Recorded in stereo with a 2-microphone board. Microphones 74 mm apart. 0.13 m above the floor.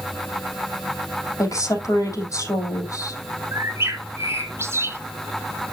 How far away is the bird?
About 1.0 m.